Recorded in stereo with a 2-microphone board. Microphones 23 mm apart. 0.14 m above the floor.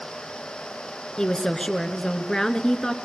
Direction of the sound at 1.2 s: 25° left (ahead or behind).